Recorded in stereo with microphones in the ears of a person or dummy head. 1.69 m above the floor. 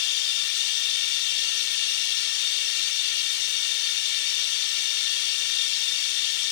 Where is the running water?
70° left (ahead or behind).